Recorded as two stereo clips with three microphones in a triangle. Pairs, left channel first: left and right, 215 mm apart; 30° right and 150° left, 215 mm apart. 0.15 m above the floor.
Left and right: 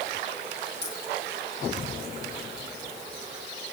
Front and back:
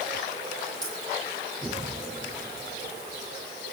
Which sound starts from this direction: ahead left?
A dropped coin, at 0.8 s.